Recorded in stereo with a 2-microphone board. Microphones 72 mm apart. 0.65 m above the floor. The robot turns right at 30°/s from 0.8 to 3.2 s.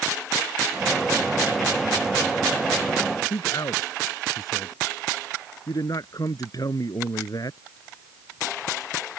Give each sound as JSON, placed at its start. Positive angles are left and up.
{"t": 3.3, "sound": "a man speaking", "side_deg": 60}